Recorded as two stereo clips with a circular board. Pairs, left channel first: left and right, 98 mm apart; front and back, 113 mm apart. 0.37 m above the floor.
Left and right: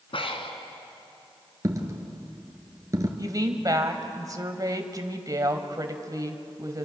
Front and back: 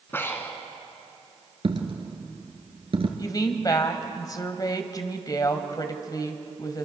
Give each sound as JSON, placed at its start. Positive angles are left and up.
{"t": 0.1, "sound": "breathing", "azimuth_deg": 70, "distance_m": 2.0}
{"t": 1.6, "sound": "a dropped coin", "azimuth_deg": -145, "distance_m": 2.0}
{"t": 3.2, "sound": "a woman speaking", "azimuth_deg": -45, "distance_m": 1.8}